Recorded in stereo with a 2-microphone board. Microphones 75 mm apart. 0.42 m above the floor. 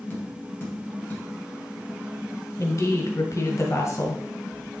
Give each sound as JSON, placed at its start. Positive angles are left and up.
{"t": 0.1, "sound": "tapping", "side_deg": 20, "distance_m": 3.0}
{"t": 2.6, "sound": "a woman speaking", "side_deg": 45, "distance_m": 2.5}